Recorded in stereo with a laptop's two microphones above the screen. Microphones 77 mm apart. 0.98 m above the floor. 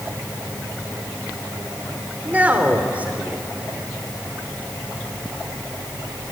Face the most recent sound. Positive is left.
turn(degrees=-20)  # may be behind; listen again after turning